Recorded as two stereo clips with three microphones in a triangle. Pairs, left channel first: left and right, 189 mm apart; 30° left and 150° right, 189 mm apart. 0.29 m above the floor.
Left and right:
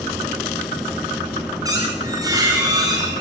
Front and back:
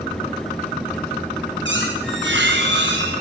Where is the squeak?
160° right, 5.5 m.